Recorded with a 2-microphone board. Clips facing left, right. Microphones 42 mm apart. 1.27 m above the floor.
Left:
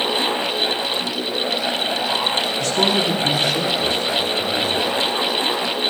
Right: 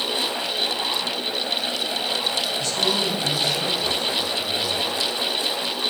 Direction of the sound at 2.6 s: 65° left (ahead or behind).